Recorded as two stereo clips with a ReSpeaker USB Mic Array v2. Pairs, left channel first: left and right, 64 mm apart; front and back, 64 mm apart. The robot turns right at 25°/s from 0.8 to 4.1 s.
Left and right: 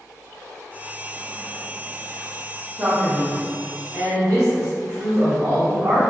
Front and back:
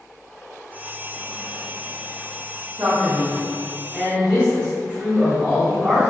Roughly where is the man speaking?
Behind right.